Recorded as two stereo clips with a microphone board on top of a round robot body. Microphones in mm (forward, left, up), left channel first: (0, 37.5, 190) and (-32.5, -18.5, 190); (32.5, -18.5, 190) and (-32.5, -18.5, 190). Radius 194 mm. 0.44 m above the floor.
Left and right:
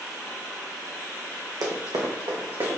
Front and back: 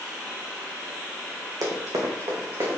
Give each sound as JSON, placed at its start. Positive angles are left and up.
{"t": 1.6, "sound": "running footsteps", "azimuth_deg": -145, "distance_m": 2.0}